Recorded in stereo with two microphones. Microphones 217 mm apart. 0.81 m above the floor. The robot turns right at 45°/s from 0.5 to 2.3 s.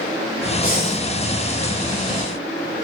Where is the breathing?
40° left (ahead or behind), 2 m; by 1.0 s 55° left (ahead or behind), 2 m.